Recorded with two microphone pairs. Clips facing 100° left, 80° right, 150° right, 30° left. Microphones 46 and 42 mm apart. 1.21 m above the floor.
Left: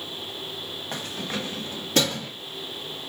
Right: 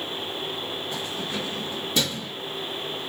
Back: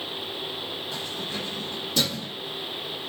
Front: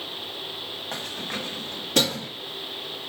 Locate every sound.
0.9 s keys jangling: 60° left, 1.2 m